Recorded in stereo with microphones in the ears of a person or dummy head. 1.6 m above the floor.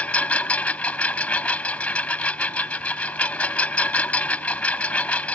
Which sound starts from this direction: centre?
A lawn mower, at 0.0 s.